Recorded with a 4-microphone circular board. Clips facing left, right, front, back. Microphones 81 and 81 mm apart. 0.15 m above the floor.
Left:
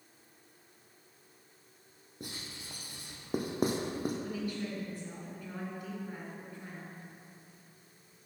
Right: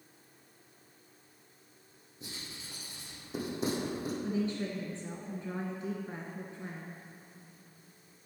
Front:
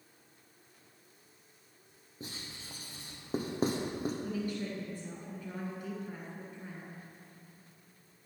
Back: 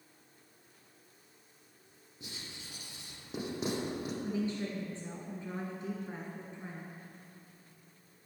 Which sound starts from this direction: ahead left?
Writing, at 2.2 s.